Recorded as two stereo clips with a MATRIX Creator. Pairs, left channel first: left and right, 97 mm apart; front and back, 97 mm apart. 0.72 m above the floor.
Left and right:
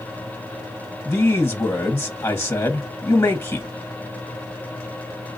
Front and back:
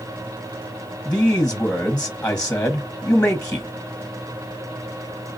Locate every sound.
1.1 s a man speaking: 60° left, 1.1 m